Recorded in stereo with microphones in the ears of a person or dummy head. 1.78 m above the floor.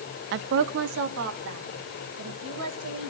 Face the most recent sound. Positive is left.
turn(degrees=-85)